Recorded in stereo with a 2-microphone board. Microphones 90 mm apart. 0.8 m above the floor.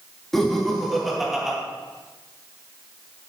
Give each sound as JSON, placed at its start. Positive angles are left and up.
{"t": 0.3, "sound": "laughter", "side_deg": 5, "distance_m": 1.7}